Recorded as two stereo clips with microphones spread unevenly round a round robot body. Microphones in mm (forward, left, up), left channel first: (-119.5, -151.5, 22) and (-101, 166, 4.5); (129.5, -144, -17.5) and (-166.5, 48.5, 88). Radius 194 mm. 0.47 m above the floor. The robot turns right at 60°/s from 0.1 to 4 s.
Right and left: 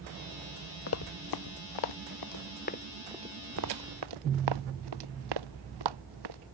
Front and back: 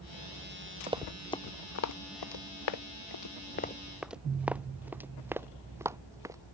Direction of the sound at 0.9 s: 140° right.